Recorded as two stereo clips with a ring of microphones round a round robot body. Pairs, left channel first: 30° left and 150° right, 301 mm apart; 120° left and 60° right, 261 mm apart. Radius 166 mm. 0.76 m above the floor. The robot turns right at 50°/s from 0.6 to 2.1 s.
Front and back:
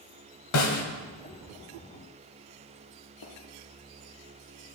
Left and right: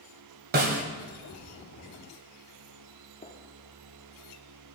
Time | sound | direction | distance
0.5 | a snare drum | 5° right | 1.4 m
3.2 | a gunshot | 60° left | 1.2 m